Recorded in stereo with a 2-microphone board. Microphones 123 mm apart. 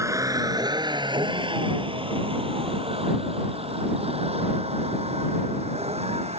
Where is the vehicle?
25° right (ahead or behind); by 6.4 s 60° right (ahead or behind).